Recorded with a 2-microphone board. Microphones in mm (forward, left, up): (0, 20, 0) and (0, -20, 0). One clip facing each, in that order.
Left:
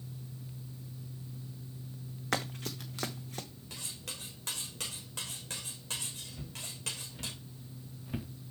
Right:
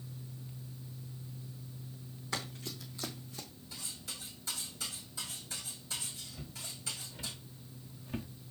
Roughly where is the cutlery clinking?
Left.